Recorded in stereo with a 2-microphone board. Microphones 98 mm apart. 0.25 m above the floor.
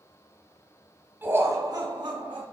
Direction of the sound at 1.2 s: 20° right (ahead or behind).